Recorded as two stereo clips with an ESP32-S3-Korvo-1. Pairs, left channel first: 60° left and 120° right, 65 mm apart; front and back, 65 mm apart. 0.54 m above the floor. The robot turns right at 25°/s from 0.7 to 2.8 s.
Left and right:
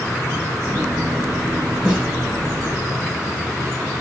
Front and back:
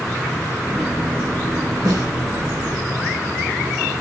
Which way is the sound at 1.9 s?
165° left.